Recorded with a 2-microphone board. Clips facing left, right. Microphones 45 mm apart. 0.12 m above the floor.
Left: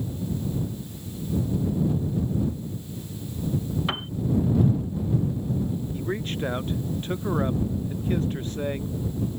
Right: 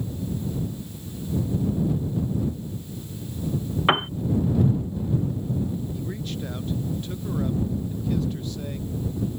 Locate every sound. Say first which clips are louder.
3.9 s a piano: right 9 dB; 40° right (ahead or behind)
5.9 s a man speaking: left 3 dB; 40° left (ahead or behind)